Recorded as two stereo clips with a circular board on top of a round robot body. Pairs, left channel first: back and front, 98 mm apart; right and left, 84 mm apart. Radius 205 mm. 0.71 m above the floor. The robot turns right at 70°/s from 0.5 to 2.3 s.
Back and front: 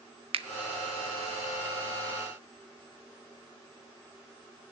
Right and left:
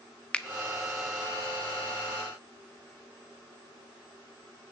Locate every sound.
0.3 s a finger snap: 15° right, 0.5 m